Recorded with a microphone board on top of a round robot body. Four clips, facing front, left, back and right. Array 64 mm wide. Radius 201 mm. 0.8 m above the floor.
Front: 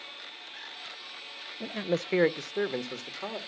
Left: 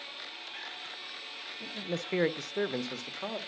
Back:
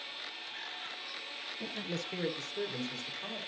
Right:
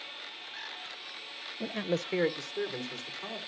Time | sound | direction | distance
1.6 | a man speaking | 60° right | 0.7 m